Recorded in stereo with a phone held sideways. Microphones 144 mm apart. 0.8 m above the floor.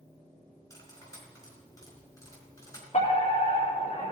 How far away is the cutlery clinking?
About 5 m.